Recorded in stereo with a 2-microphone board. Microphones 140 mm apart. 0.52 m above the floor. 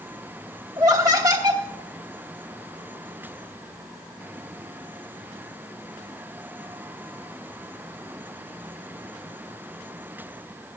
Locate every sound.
0.8 s laughter: 25° right (ahead or behind), 1.0 m